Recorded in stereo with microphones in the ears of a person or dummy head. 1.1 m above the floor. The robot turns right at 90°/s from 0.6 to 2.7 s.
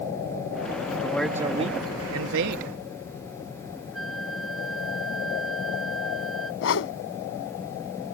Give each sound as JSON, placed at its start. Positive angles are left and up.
{"t": 1.0, "sound": "a man speaking", "azimuth_deg": 160}
{"t": 3.9, "sound": "a flute", "side_deg": 0}
{"t": 6.6, "sound": "a whoosh", "side_deg": 75}